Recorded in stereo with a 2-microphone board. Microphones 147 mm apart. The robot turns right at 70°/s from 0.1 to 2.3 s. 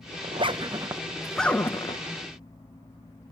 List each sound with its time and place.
0.2 s a zipper: 40° right (ahead or behind), 0.5 m; by 2.0 s 30° left (ahead or behind), 0.5 m